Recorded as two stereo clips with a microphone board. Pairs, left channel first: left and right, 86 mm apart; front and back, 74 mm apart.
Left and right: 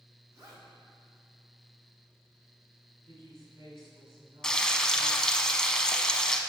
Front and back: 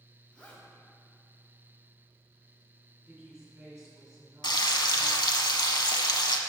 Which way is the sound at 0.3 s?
65° right.